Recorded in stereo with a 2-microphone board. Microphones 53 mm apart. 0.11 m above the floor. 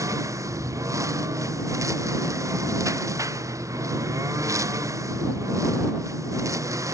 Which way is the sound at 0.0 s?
90° right.